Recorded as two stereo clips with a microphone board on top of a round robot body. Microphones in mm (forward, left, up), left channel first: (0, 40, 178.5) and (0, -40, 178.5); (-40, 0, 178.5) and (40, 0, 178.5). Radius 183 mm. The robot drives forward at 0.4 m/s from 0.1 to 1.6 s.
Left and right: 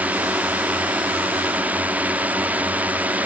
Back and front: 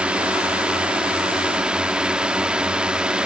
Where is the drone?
55° right; by 3.3 s 60° right.